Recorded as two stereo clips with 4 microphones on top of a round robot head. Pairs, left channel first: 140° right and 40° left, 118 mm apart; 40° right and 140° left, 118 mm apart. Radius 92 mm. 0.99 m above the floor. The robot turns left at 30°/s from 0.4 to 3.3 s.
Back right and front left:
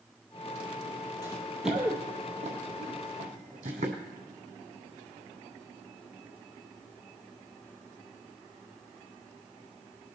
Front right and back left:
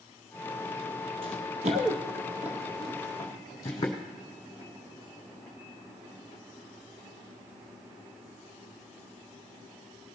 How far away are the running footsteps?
About 1.2 m.